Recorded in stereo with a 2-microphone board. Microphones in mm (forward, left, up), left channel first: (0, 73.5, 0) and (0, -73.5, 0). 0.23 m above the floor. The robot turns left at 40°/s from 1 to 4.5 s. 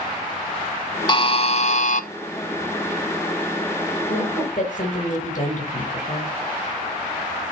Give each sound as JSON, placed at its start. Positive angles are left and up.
{"t": 1.1, "sound": "a buzzer", "azimuth_deg": 140, "distance_m": 0.6}
{"t": 4.1, "sound": "a woman speaking", "side_deg": 65, "distance_m": 4.0}